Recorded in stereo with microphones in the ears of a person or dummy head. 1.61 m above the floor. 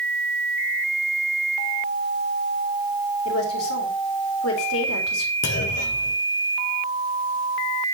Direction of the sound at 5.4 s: 55° left (ahead or behind).